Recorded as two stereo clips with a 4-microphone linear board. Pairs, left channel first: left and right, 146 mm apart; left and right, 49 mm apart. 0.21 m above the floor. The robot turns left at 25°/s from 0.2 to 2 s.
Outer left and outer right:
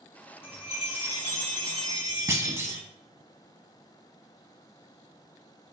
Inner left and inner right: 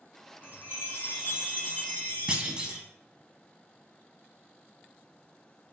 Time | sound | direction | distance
0.4 | a chime | 100° left | 1.8 m
2.3 | a clunk | 20° right (ahead or behind) | 0.5 m